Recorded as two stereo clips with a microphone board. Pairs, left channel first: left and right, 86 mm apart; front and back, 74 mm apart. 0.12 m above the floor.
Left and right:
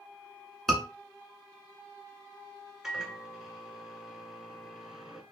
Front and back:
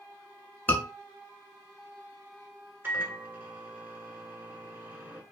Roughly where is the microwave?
Behind.